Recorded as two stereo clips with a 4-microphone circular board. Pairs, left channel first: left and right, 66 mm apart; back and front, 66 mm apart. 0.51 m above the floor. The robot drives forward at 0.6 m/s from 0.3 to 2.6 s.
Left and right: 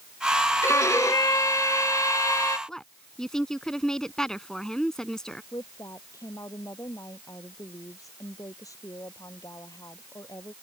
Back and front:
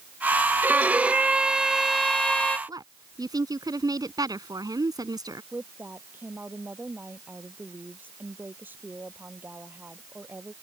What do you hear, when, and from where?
0.6 s a violin: 55° left; by 2.6 s 110° left
2.7 s a woman speaking: 10° left
5.5 s a woman speaking: 60° left